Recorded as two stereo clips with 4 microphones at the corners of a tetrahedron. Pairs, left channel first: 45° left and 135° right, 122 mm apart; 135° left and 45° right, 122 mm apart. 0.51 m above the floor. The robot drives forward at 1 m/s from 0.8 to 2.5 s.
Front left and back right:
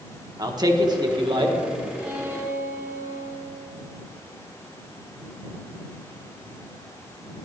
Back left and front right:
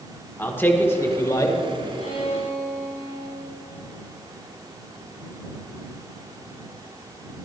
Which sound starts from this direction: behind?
A man speaking, at 0.4 s.